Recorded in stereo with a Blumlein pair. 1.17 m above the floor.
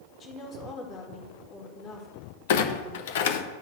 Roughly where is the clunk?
Ahead left.